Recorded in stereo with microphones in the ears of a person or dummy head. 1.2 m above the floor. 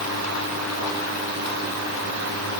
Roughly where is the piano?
I don't hear a piano.